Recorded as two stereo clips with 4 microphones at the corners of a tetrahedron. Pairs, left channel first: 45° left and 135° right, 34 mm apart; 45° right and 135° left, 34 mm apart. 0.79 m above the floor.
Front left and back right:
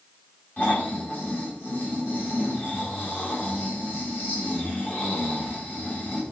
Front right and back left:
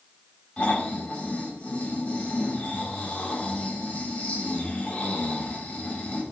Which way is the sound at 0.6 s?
10° left.